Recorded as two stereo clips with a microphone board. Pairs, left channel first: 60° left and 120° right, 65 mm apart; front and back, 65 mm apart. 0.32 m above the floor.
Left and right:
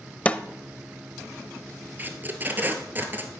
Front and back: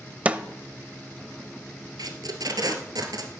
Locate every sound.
0.2 s a snare drum: 120° left, 0.7 m
2.0 s tape being pulled: straight behind, 1.4 m